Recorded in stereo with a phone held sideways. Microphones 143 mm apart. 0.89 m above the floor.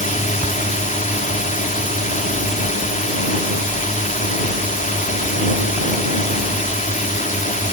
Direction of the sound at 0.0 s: 65° left (ahead or behind).